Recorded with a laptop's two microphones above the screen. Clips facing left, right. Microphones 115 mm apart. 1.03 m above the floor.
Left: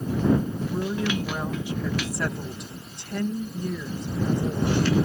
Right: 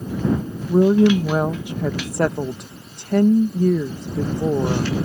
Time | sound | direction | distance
0.7 | a woman speaking | 60° right (ahead or behind) | ?